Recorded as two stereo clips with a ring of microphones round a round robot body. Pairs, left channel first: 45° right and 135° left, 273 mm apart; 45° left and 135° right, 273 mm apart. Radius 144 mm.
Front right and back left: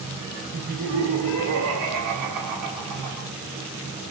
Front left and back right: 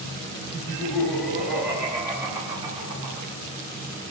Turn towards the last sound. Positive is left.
turn(degrees=155)